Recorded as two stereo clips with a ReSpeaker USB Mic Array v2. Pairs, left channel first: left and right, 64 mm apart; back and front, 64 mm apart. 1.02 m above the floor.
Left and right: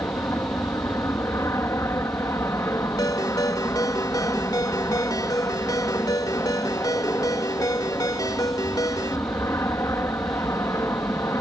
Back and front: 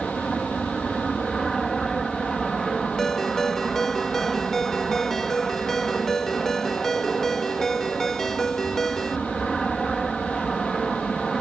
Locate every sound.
0.0 s an aircraft: 95° left
3.0 s a ringtone: 95° left